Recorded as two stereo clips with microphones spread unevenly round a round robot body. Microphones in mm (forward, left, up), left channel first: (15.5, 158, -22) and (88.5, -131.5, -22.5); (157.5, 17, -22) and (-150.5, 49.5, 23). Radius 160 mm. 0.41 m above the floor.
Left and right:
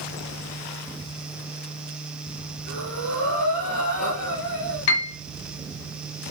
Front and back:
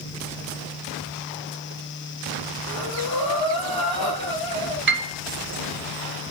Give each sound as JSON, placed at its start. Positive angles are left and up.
{"t": 2.7, "sound": "breathing", "azimuth_deg": 70, "distance_m": 5.5}
{"t": 4.9, "sound": "a piano", "azimuth_deg": 120, "distance_m": 1.7}